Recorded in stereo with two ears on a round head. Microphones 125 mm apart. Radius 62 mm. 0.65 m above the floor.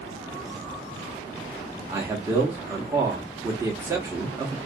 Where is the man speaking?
20° right (ahead or behind), 0.8 m.